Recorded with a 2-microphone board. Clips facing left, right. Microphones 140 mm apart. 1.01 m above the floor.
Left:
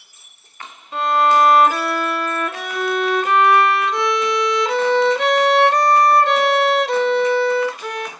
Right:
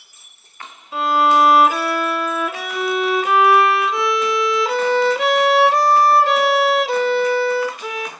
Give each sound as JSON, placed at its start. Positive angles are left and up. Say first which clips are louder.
{"t": 0.9, "sound": "a violin", "louder": "even", "side_deg": 0, "distance_m": 0.9}